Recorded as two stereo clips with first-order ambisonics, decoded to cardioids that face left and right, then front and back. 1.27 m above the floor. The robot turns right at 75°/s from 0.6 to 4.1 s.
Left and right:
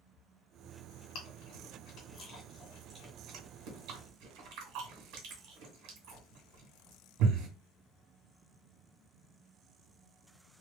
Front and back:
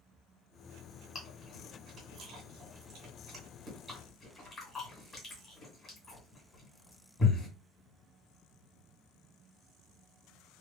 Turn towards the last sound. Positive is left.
turn(degrees=-70)